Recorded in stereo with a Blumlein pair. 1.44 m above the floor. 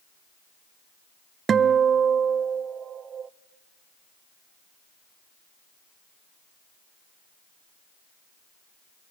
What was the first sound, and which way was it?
A guitar, 20° right.